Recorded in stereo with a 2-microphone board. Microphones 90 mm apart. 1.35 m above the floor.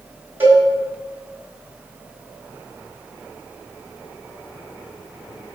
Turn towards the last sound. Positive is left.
turn(degrees=-25)  # may be behind; listen again after turning